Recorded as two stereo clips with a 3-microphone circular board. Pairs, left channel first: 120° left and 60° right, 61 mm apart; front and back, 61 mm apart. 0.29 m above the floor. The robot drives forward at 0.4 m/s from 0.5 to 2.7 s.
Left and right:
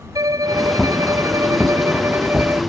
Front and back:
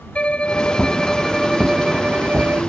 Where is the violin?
70° right; by 2.6 s 115° right.